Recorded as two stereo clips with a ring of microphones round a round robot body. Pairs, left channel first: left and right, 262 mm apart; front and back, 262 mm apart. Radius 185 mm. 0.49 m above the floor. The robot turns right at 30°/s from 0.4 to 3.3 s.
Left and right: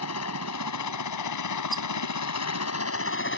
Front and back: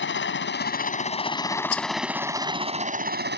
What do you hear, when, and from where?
0.0 s a helicopter: 45° left; by 3.4 s 130° left
1.7 s a rattle: straight ahead; by 1.9 s 5° left